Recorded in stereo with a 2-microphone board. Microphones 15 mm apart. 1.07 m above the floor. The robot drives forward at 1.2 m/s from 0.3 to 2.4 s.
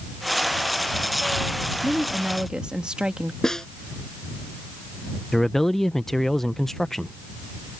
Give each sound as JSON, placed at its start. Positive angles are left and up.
{"t": 1.8, "sound": "a woman speaking", "side_deg": -50}
{"t": 3.4, "sound": "a snare drum", "side_deg": 35}
{"t": 5.3, "sound": "a man speaking", "side_deg": 20}